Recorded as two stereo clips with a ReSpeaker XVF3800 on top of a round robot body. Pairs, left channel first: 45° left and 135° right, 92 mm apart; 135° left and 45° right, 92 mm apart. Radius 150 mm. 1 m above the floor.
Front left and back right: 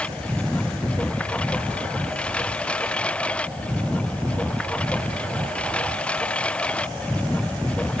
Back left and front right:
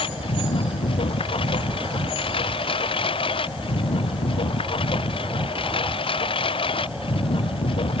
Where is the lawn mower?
120° left.